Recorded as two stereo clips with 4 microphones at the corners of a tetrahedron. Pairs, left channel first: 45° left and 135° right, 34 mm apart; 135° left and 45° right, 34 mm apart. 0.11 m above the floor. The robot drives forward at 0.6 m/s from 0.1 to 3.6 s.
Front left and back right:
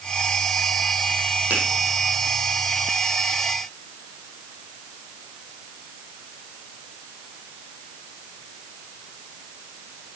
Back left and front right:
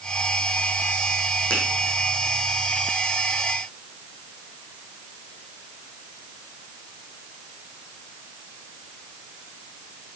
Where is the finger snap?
170° right, 4 m.